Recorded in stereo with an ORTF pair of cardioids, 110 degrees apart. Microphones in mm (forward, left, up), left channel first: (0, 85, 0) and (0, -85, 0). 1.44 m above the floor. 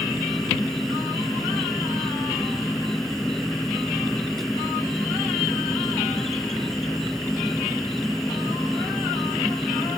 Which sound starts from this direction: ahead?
An insect, at 0.0 s.